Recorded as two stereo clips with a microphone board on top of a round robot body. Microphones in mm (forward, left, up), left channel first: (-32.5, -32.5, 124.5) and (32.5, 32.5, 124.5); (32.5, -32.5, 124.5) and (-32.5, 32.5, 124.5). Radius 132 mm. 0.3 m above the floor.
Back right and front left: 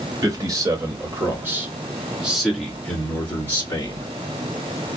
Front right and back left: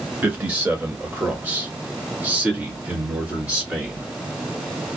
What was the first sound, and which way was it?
A man speaking, 70° left.